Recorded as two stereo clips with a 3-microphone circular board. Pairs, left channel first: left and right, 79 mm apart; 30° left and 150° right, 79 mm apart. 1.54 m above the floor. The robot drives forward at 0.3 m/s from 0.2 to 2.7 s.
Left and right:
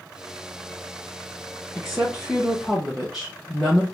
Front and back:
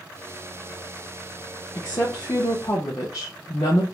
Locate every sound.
1.8 s a woman speaking: 5° right, 1.1 m